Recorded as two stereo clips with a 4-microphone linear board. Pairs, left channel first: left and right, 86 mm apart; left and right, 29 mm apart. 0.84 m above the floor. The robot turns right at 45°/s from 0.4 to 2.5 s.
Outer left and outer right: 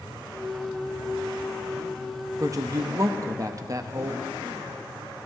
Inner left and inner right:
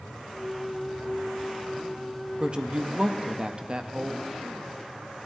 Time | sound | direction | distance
2.4 | a woman speaking | 35° right (ahead or behind) | 0.6 m